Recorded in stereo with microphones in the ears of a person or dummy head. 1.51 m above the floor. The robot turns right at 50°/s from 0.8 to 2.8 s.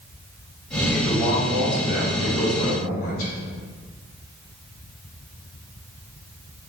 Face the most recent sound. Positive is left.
turn(degrees=105)